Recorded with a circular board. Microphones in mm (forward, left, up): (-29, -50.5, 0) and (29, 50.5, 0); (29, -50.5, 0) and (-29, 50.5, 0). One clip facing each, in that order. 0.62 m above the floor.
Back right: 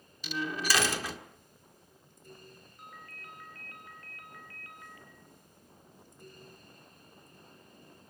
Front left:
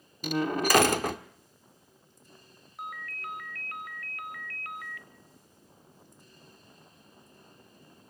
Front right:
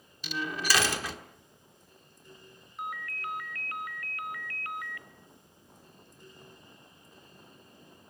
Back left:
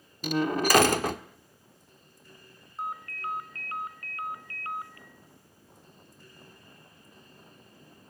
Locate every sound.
0.2 s a door slam: 90° left, 1.3 m
2.8 s a ringtone: 60° left, 1.8 m